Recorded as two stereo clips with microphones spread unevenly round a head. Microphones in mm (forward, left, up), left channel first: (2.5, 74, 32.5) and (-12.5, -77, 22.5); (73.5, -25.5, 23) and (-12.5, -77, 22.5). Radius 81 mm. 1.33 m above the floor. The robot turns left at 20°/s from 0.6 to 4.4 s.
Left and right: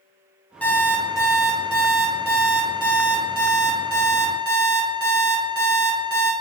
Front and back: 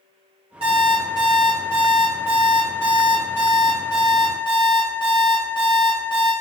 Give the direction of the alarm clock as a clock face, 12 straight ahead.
7 o'clock.